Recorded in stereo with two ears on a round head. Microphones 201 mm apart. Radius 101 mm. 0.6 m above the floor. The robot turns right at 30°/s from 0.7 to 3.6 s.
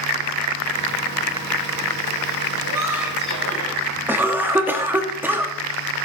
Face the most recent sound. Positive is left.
turn(degrees=-10)  # may be behind; listen again after turning